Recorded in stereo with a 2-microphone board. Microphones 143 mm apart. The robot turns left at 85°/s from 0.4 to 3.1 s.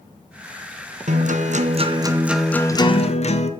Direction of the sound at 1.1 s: 65° right.